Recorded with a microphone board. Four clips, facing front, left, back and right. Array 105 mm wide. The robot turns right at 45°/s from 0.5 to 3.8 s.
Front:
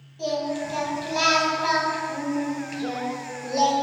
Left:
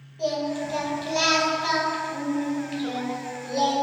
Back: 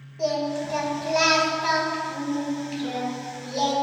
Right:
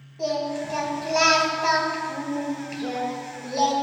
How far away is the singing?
About 1.1 m.